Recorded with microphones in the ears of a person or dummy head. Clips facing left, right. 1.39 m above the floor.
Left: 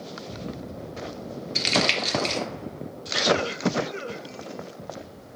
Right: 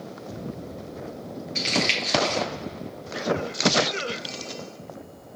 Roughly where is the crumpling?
Left.